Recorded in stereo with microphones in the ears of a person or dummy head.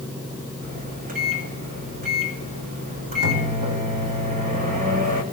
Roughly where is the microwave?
Right.